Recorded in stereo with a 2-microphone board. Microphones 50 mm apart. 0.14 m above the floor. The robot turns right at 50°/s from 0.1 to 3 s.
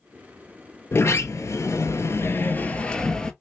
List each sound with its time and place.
0.9 s a sliding door: 60° left, 0.6 m; by 3.3 s 165° left, 0.6 m